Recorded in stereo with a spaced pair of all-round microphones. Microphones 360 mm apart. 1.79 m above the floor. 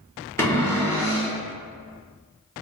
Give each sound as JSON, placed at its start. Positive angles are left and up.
{"t": 0.4, "sound": "a cupboard door", "side_deg": 5, "distance_m": 0.9}